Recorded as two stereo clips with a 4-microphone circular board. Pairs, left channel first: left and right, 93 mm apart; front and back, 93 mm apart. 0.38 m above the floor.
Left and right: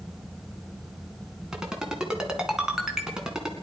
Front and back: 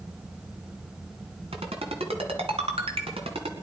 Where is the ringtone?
175° right, 2 m.